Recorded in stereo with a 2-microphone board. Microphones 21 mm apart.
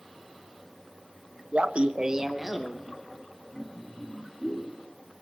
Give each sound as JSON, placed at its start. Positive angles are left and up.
{"t": 1.5, "sound": "laughter", "side_deg": -75, "distance_m": 0.7}